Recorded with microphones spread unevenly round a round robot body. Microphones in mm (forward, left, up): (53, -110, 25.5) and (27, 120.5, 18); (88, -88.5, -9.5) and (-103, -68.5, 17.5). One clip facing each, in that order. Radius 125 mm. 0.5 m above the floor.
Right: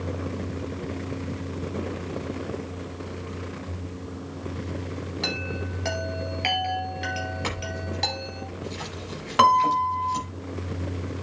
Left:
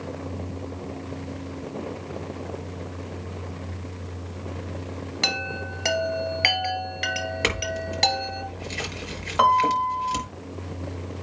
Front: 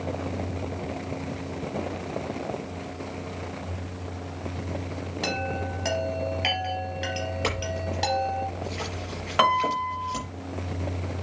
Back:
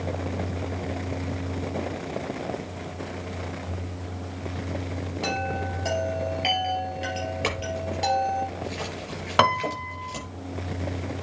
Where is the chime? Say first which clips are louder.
Right 1 dB, even; 75° left, 2 m.